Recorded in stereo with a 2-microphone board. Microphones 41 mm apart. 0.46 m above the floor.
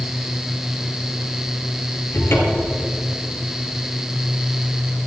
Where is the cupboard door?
70° left (ahead or behind), 3 m.